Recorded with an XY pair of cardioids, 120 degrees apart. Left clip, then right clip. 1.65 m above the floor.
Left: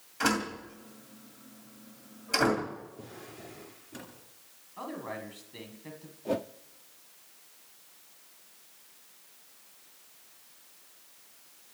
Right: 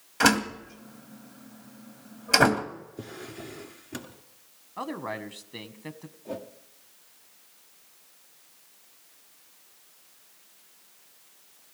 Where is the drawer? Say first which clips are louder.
Right 6 dB; 60° right, 2.5 m.